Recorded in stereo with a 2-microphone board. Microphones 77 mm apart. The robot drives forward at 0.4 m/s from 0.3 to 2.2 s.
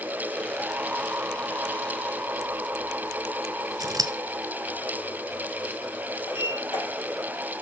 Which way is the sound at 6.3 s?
75° left (ahead or behind).